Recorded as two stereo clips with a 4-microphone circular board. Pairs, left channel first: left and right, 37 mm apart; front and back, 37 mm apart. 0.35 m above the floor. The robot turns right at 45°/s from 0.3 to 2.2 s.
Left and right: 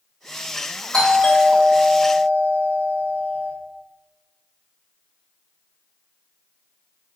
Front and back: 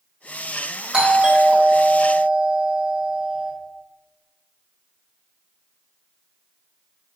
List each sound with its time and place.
0.9 s a doorbell: 135° left, 1.5 m; by 3.5 s 170° right, 1.5 m